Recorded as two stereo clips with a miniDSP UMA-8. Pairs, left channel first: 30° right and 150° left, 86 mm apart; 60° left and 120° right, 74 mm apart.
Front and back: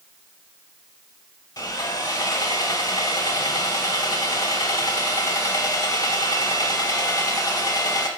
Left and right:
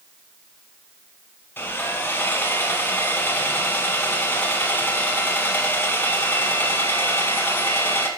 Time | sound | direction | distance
1.6 | sawing | 5° left | 1.1 m